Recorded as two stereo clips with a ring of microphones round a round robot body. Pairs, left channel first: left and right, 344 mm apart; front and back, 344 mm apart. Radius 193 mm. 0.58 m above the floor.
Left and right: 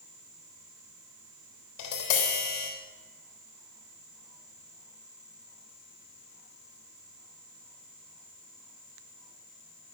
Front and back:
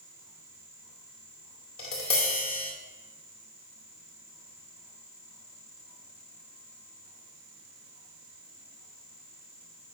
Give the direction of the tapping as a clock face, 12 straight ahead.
10 o'clock.